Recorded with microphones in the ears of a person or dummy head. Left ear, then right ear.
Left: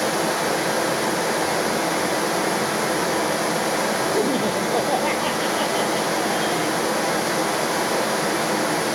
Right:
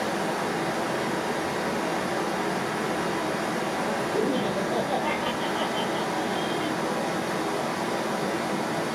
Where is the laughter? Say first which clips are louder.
Left 5 dB; 25° left (ahead or behind), 0.7 m.